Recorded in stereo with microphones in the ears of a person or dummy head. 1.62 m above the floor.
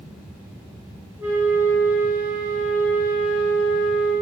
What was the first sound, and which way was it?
A flute, 10° right (ahead or behind).